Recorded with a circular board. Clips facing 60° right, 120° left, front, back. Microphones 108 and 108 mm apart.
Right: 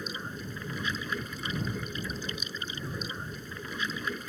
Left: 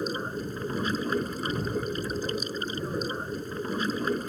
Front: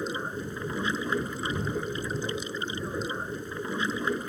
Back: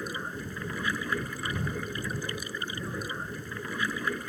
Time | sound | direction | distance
0.0 | running water | 70° left | ?